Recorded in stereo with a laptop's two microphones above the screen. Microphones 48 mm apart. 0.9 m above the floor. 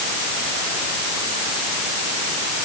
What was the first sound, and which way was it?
Only background noise.